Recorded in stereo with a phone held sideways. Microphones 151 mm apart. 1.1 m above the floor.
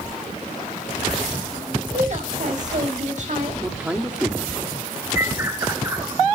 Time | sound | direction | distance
1.9 | a woman speaking | 55° right (ahead or behind) | 5 m
3.6 | a man speaking | 10° right (ahead or behind) | 2 m
5.2 | a bird | 20° right (ahead or behind) | 1.8 m